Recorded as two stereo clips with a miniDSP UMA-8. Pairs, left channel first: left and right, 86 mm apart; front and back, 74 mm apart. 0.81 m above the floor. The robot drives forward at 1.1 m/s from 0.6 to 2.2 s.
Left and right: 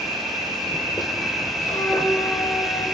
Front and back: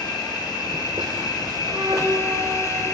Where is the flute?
135° left, 1.5 m; by 2.8 s 145° left, 2.0 m.